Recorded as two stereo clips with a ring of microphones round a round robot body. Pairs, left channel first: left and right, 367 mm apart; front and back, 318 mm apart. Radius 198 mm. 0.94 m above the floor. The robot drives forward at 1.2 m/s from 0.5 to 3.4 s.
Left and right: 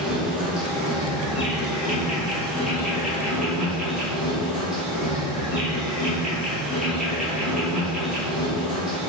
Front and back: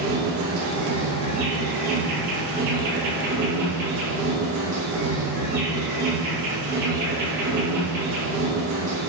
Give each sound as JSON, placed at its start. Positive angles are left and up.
{"t": 0.0, "sound": "an insect", "azimuth_deg": 180, "distance_m": 3.0}